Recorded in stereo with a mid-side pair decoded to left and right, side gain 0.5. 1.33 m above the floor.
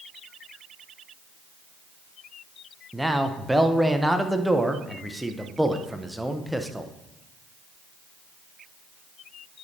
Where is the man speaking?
5° right, 0.8 m.